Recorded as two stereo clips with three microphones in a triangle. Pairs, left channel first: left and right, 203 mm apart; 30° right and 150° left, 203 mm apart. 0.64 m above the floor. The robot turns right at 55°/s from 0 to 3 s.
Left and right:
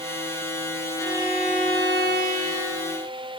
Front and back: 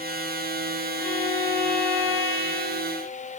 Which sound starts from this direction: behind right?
A violin, at 1.0 s.